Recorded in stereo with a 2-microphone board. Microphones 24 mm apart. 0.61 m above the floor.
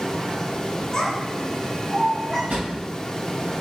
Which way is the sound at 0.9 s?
25° left (ahead or behind).